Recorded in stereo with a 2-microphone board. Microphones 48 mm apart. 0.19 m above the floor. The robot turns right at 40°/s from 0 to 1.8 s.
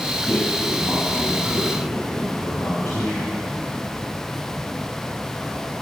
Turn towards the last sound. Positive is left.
turn(degrees=90)